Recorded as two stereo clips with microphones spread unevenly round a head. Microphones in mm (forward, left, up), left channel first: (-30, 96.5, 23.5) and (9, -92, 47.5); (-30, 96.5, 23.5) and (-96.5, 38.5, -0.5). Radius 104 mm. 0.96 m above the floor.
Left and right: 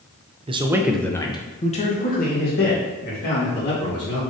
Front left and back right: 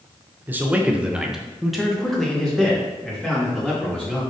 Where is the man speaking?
130° right, 0.6 m; by 4.2 s 125° left, 2 m.